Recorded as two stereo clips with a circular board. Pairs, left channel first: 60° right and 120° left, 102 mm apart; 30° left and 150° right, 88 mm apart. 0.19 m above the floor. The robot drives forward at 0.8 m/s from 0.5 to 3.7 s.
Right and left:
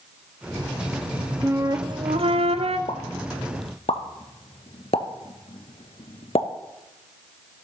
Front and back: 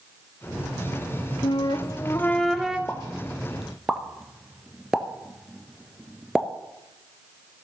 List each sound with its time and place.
1.4 s a flute: 50° left, 0.8 m; by 2.8 s 130° left, 0.9 m
2.9 s a pop: 40° right, 1.4 m; by 6.5 s 65° right, 1.0 m